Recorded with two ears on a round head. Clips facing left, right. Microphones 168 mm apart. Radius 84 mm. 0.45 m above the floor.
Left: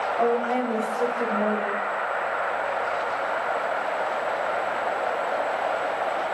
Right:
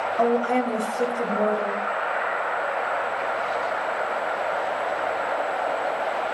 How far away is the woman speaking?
About 2.0 m.